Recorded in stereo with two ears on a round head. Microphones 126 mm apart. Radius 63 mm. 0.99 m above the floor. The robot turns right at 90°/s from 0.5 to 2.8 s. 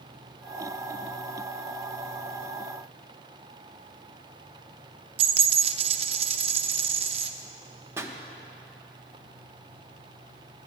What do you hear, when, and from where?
5.2 s a dropped coin: 45° right (ahead or behind), 0.6 m
8.0 s a pop: 15° right (ahead or behind), 0.8 m